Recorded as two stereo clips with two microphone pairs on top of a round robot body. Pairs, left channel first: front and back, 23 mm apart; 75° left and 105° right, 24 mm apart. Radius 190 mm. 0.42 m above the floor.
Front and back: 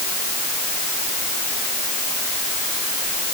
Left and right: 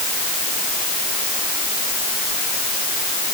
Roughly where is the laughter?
I don't hear laughter.